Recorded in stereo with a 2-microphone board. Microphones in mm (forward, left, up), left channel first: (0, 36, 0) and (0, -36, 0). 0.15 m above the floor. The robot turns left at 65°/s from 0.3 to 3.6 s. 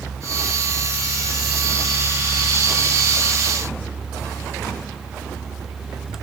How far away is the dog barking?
No dog barking in this recording.